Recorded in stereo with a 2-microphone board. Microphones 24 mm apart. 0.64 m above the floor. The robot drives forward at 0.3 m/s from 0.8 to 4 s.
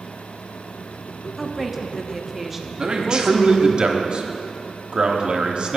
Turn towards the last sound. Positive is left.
turn(degrees=-45)  # may be behind; listen again after turning